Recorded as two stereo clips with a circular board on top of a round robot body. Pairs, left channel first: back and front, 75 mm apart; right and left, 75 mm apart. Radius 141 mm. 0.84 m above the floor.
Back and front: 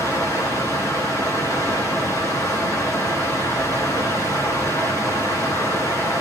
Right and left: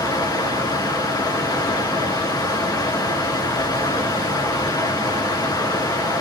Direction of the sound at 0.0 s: 130° right.